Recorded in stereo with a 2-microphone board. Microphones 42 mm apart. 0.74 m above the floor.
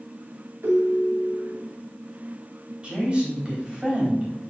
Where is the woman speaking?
25° right (ahead or behind), 3.5 m.